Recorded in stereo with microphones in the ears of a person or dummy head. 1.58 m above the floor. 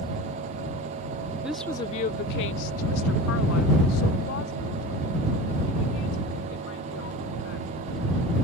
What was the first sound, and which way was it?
A woman speaking, 10° right (ahead or behind).